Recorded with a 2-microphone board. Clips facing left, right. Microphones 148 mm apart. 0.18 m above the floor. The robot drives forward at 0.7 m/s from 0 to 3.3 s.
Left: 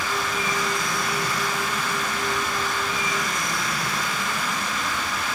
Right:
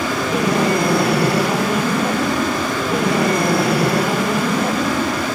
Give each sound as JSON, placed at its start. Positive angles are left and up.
{"t": 0.0, "sound": "an aircraft", "side_deg": -65}